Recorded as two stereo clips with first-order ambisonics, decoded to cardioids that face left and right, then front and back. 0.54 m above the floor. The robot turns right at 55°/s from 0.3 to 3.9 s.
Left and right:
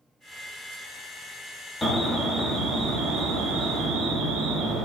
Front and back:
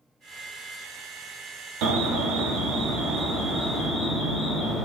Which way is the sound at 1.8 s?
175° left.